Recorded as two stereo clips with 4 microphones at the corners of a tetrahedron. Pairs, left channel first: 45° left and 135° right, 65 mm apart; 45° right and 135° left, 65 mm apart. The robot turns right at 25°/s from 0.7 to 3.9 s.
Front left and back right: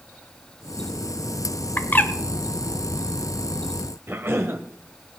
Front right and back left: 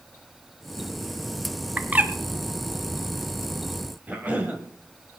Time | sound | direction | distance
1.8 | a bird | 80° left | 1.1 m
4.1 | a cough | 170° right | 1.9 m